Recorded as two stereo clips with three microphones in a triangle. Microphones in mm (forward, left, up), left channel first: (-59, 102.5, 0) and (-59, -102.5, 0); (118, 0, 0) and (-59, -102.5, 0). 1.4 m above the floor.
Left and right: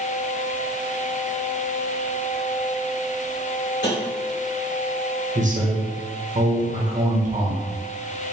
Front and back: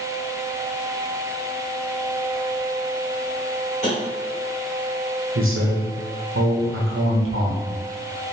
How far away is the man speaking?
About 1.0 m.